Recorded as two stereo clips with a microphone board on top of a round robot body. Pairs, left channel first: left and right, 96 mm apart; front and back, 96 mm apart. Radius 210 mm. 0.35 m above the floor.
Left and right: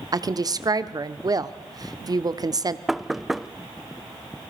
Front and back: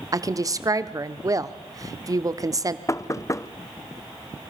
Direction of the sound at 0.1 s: 130° right.